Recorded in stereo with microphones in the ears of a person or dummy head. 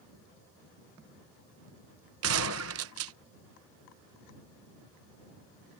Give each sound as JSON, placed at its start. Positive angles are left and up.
{"t": 2.2, "sound": "a gunshot", "side_deg": -75}